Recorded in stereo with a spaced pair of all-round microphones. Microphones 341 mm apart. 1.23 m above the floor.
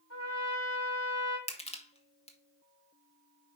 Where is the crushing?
15° left (ahead or behind), 1.3 m.